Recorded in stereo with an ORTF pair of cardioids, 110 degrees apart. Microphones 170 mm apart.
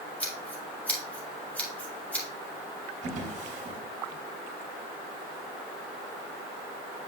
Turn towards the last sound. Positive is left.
turn(degrees=-45)